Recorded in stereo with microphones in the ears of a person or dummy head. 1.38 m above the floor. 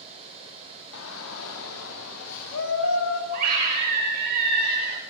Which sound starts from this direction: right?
A scream, at 3.3 s.